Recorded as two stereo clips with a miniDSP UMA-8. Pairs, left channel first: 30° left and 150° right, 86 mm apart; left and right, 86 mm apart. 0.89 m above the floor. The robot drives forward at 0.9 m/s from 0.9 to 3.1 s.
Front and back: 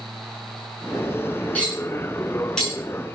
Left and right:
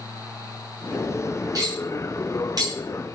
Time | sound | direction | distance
1.6 | cutlery clinking | 45° right | 6.5 m